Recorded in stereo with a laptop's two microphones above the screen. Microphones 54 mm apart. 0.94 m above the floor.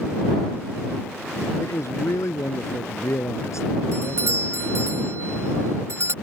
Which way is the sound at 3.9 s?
60° right (ahead or behind).